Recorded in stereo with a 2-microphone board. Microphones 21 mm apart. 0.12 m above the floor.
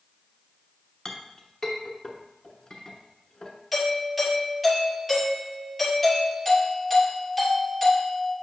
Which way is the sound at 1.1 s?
30° left (ahead or behind).